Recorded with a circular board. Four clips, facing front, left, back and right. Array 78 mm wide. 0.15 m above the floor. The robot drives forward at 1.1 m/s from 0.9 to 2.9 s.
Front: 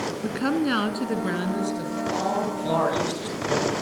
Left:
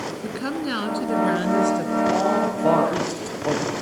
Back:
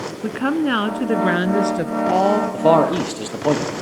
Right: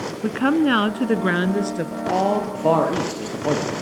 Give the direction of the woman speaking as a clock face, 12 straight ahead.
4 o'clock.